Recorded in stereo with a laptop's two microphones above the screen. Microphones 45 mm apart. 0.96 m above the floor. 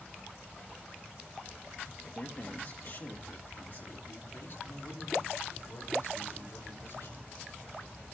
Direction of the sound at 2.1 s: 20° left (ahead or behind).